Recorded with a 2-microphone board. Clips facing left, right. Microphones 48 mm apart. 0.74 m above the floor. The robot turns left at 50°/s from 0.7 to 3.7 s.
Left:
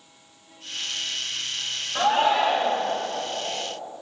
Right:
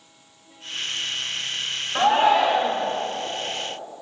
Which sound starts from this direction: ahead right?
A shout, at 1.9 s.